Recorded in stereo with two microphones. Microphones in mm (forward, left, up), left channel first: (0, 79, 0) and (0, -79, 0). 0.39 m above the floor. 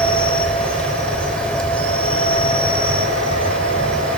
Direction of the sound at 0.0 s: 5° left (ahead or behind).